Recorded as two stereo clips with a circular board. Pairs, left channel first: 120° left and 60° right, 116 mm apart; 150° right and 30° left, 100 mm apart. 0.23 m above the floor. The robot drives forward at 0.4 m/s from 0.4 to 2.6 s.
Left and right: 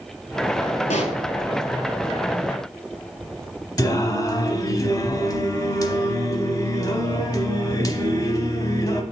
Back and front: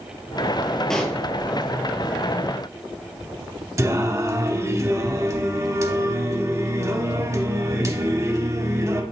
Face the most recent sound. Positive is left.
turn(degrees=75)